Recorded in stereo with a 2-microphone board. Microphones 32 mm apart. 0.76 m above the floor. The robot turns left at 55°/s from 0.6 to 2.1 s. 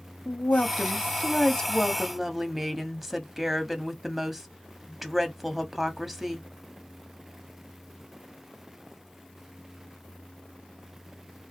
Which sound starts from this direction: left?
A woman speaking, at 0.2 s.